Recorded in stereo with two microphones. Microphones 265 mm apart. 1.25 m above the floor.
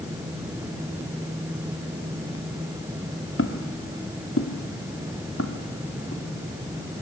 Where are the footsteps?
50° left (ahead or behind), 1.8 m; by 6.2 s 55° left (ahead or behind), 4.5 m.